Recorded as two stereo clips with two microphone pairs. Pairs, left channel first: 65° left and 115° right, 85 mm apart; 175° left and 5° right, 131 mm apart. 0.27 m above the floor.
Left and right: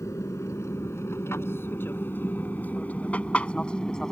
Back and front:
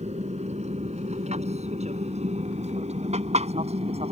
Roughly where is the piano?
No piano in this recording.